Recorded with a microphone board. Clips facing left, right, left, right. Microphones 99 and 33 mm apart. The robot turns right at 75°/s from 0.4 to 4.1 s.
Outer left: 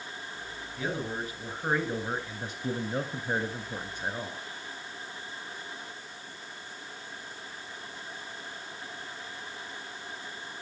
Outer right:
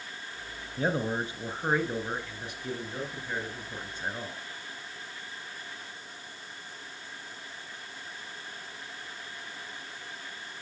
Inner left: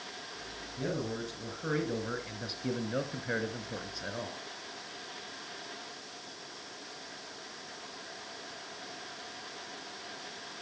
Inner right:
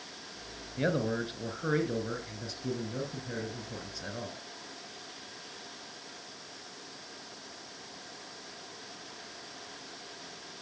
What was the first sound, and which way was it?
A man speaking, 85° right.